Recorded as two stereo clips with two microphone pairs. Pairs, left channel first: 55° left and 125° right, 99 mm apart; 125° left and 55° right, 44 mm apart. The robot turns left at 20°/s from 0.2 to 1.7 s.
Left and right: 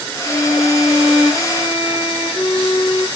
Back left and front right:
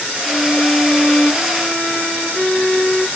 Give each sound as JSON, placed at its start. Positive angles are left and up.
{"t": 0.2, "sound": "a violin", "azimuth_deg": 60, "distance_m": 3.5}